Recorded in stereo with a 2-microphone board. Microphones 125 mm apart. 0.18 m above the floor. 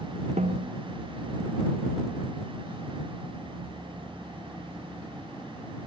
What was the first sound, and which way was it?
A snare drum, 75° right (ahead or behind).